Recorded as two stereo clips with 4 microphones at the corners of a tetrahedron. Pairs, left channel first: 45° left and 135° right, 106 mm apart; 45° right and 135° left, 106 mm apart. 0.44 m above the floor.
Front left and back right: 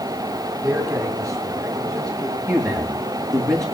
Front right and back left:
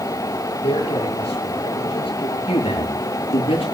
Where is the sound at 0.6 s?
70° right, 7 m; by 2.4 s 85° right, 7 m.